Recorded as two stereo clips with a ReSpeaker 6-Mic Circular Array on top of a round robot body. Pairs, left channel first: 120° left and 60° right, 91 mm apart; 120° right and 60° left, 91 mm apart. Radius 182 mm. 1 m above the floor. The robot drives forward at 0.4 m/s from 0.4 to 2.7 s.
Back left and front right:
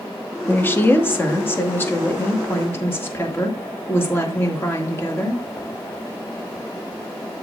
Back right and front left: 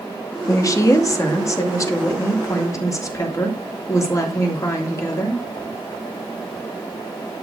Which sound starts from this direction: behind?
A woman speaking, at 0.5 s.